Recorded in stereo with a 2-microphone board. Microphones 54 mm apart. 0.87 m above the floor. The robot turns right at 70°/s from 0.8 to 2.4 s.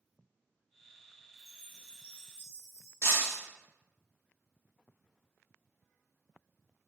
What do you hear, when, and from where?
1.4 s a chime: 65° right, 2.0 m; by 2.9 s 5° left, 2.0 m
3.0 s breaking glass: 50° left (ahead or behind), 1.3 m